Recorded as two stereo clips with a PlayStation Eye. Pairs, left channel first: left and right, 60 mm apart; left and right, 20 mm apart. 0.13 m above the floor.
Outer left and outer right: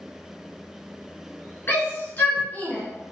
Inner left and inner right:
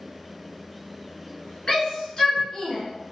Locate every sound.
1.7 s a shout: 35° left (ahead or behind), 1.4 m; by 2.8 s 25° left (ahead or behind), 1.5 m